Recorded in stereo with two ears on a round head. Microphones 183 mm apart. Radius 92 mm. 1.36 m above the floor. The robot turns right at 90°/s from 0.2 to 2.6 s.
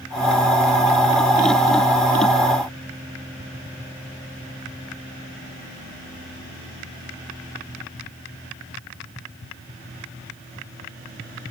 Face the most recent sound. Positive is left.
No sound to turn to.